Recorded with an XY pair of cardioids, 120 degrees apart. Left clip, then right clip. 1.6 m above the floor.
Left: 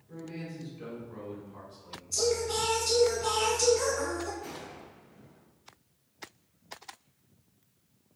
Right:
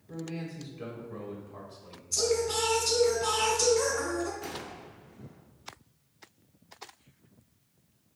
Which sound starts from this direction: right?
A gunshot, at 4.4 s.